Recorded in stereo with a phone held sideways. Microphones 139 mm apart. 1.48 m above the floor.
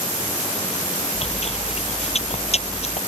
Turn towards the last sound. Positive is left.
turn(degrees=50)  # may be behind; listen again after turning